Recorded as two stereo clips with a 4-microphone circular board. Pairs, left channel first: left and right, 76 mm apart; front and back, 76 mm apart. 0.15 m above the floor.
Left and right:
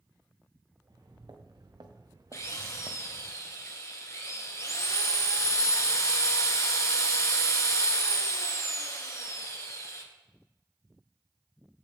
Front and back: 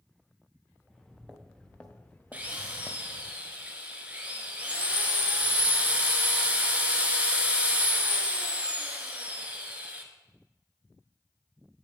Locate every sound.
0.8 s footsteps: 85° right, 1.7 m; by 3.3 s 20° right, 0.6 m
2.3 s a drill: 115° left, 1.1 m